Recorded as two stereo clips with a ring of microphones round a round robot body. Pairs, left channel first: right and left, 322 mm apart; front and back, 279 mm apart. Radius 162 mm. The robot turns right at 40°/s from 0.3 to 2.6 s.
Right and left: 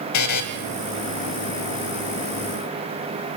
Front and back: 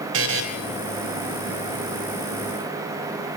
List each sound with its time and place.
0.1 s a buzzer: 130° right, 2 m; by 0.4 s 125° right, 2 m